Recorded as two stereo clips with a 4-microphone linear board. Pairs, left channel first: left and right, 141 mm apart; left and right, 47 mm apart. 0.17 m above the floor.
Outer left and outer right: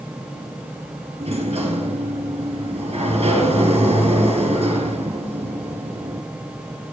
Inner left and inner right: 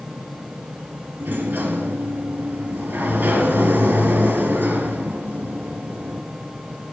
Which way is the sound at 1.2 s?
45° right (ahead or behind).